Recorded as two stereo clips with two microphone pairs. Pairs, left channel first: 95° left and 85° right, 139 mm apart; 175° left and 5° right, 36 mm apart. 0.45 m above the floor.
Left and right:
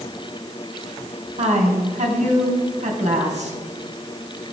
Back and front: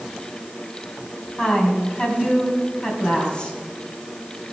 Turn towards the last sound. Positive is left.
turn(degrees=-115)